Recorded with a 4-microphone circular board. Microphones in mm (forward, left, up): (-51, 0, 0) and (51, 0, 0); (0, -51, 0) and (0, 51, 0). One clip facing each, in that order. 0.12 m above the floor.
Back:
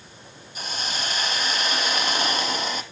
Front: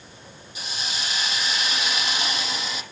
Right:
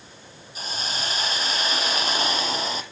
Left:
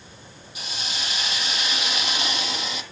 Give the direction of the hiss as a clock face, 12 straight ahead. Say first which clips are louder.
Back 3 dB, right 3 dB; 5 o'clock.